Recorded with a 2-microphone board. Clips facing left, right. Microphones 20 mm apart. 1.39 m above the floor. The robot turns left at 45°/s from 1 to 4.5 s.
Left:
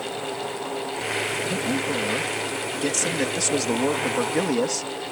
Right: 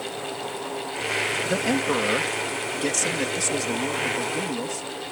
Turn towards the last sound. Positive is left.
turn(degrees=110)